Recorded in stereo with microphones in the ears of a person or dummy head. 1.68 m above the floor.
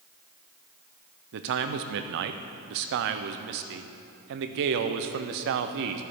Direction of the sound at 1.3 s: 65° right (ahead or behind).